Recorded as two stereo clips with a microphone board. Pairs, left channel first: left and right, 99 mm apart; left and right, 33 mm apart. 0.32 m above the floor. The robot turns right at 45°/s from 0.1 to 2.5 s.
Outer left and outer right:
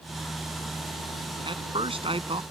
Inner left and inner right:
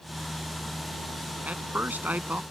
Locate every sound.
1.4 s a man speaking: 115° right; by 2.4 s 70° right